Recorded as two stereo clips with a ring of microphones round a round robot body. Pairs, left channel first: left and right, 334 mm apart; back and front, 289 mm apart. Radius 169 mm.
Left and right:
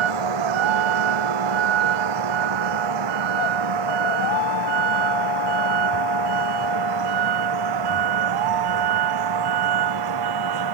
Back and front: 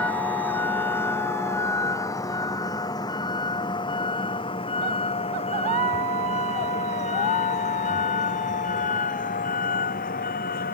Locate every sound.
0.0 s a vehicle: 95° right; by 10.7 s 115° right